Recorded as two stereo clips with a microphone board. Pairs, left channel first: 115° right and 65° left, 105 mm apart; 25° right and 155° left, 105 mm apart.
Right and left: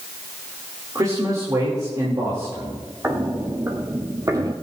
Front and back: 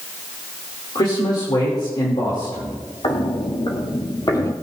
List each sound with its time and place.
0.9 s a man speaking: 15° left, 3 m
3.0 s footsteps: straight ahead, 2 m; by 4.5 s 25° left, 1.4 m